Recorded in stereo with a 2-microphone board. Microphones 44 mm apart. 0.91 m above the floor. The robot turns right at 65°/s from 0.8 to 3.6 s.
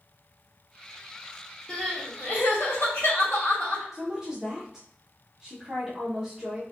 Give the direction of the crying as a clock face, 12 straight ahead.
11 o'clock.